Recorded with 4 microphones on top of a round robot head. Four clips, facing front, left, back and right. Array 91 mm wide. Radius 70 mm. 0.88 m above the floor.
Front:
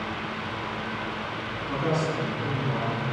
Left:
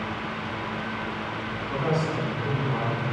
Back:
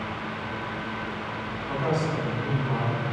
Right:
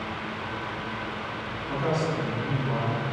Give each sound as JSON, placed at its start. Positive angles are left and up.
{"t": 1.7, "sound": "a man speaking", "azimuth_deg": 170, "distance_m": 6.5}